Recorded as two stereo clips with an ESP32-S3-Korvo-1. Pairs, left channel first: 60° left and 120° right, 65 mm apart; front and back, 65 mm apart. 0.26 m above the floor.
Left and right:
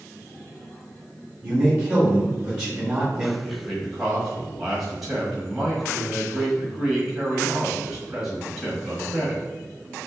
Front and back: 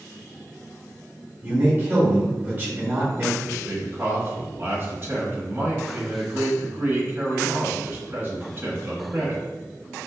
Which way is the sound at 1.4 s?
175° left.